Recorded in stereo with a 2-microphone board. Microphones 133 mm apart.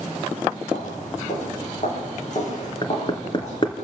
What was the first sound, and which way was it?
Footsteps, 65° left (ahead or behind).